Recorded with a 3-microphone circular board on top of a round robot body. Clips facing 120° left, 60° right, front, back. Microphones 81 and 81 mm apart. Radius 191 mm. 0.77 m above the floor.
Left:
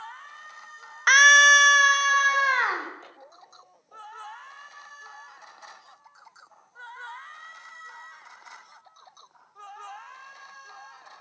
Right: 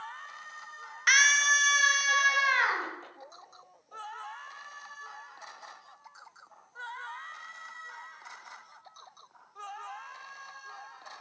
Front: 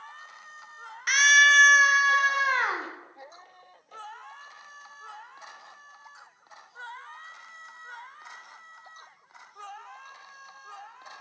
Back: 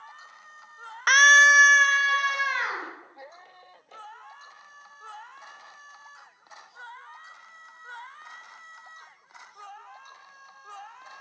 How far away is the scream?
About 0.6 m.